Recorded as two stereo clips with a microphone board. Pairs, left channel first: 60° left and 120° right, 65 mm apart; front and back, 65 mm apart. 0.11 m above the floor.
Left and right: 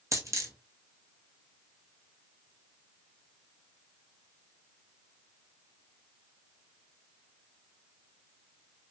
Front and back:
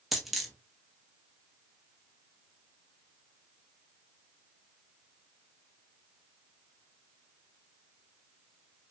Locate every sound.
0.1 s a dropped coin: 90° right, 0.9 m